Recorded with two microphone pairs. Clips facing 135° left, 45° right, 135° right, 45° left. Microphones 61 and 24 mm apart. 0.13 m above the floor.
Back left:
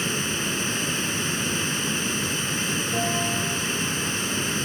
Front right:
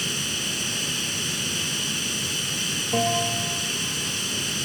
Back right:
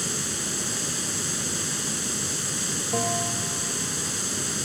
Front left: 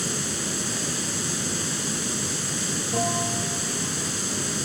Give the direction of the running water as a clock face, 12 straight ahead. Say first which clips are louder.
Back left 3 dB, front left 1 dB; 8 o'clock.